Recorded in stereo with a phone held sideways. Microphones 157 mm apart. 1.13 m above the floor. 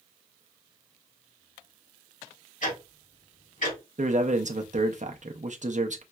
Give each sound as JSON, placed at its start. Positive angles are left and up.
{"t": 2.6, "sound": "ticking", "side_deg": 60, "distance_m": 2.0}
{"t": 4.0, "sound": "a man speaking", "side_deg": -55, "distance_m": 0.6}